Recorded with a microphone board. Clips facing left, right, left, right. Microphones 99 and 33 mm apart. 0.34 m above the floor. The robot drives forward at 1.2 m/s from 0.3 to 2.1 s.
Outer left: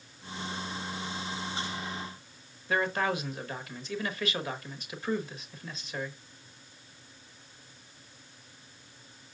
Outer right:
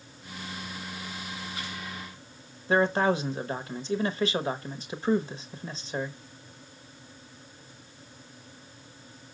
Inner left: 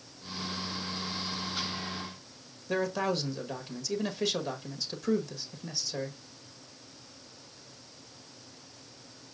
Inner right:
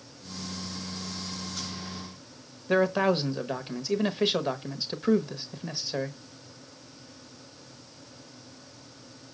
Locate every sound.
2.7 s a man speaking: 30° right (ahead or behind), 1.2 m